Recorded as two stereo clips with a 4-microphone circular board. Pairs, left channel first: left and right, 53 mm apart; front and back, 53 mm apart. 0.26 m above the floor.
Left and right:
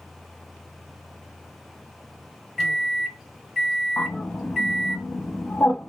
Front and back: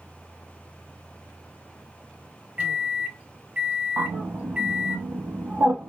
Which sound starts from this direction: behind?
A microwave, at 2.6 s.